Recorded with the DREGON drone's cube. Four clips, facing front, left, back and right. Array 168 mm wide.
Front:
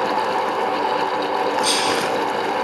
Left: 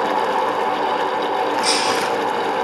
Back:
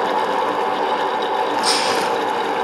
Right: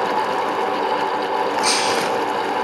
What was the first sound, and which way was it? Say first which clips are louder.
Breaking glass: even, back 2 dB; 130° right.